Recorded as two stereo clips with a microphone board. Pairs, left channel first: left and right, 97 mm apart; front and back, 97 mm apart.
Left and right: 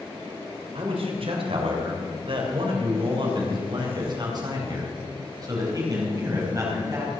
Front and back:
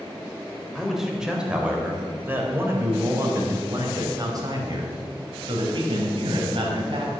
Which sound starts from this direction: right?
A man speaking, at 0.8 s.